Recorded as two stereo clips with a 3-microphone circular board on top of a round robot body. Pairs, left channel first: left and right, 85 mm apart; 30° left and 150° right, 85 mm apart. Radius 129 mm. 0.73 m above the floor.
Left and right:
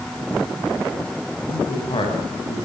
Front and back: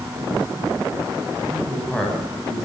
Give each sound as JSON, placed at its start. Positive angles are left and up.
{"t": 1.5, "sound": "a man speaking", "azimuth_deg": 110, "distance_m": 7.5}